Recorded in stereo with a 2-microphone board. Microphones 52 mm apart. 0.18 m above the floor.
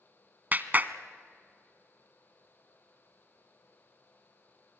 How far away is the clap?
About 1.0 m.